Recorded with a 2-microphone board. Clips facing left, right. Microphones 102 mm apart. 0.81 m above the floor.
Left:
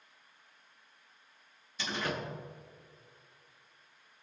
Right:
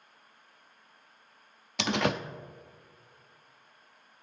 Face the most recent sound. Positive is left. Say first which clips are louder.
# right 7 dB
turn(degrees=-80)